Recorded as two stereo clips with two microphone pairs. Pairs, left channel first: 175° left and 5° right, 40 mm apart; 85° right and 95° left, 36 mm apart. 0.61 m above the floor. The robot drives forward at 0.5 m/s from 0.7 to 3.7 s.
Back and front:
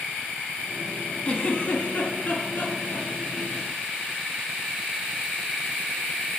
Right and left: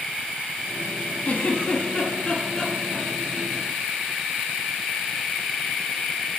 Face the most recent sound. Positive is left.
turn(degrees=-155)